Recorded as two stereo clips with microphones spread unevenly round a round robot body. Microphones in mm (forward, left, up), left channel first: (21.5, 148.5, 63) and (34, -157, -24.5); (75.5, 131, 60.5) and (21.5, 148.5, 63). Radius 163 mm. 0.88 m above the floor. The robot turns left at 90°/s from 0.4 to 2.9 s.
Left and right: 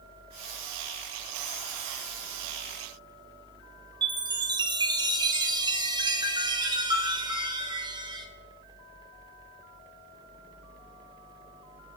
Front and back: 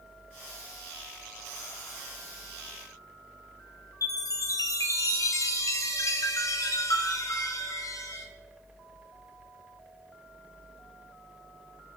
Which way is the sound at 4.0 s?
20° right.